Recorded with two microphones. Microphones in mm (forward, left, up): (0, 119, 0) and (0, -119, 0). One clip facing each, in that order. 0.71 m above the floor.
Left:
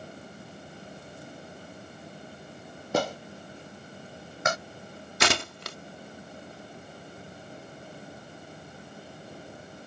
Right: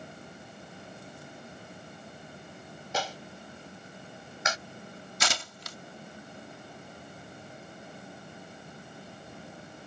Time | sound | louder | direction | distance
2.9 | a clap | left 8 dB | 55° left (ahead or behind) | ?
5.2 | tearing paper | left 9 dB | 70° left (ahead or behind) | ?